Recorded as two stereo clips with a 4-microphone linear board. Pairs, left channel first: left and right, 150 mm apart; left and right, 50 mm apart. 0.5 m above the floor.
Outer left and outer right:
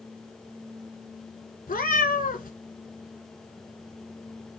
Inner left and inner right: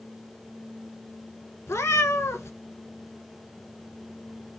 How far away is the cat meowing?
About 0.9 m.